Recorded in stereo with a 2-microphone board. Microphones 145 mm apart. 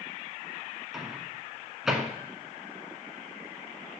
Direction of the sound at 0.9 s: Centre (ahead or behind).